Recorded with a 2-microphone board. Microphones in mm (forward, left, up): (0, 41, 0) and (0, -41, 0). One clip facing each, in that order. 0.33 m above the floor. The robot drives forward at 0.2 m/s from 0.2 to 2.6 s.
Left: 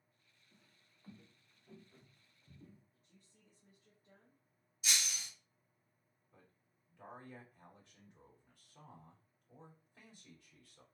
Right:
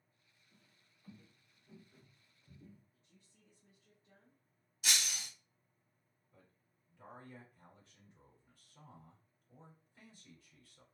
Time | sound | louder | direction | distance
0.5 | footsteps | left 1 dB | 80° left | 2 m
2.9 | a woman speaking | left 1 dB | 40° left (ahead or behind) | 1.5 m
4.8 | breaking glass | right 2 dB | 65° right (ahead or behind) | 0.9 m
6.3 | a man speaking | even | 60° left (ahead or behind) | 3 m